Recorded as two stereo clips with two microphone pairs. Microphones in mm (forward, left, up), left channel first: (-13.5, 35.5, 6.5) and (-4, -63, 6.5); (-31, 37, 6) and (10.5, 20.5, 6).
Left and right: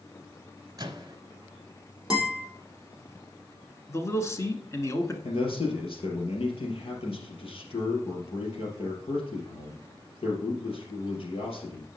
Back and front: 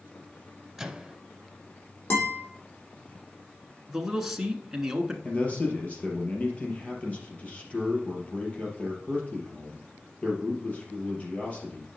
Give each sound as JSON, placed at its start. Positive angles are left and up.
{"t": 0.8, "sound": "a microwave", "azimuth_deg": -100, "distance_m": 1.1}
{"t": 2.1, "sound": "a guitar", "azimuth_deg": -165, "distance_m": 3.5}
{"t": 3.9, "sound": "a man speaking", "azimuth_deg": 55, "distance_m": 1.3}
{"t": 5.2, "sound": "a man speaking", "azimuth_deg": 105, "distance_m": 3.5}